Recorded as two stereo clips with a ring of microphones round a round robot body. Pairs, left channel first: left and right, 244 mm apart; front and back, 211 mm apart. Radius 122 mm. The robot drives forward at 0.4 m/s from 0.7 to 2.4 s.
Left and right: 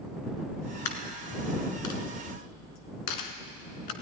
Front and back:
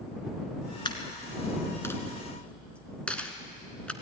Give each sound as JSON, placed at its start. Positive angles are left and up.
{"t": 0.8, "sound": "a dropped coin", "azimuth_deg": 70, "distance_m": 2.0}